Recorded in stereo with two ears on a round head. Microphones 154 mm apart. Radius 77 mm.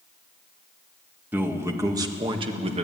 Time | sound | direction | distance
1.3 | a man speaking | 10° right (ahead or behind) | 2 m